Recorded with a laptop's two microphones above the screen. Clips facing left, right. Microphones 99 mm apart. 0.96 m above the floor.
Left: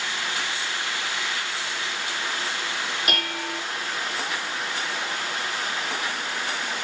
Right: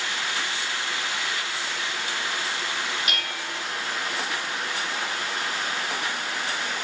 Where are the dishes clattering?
50° left (ahead or behind), 1.3 m.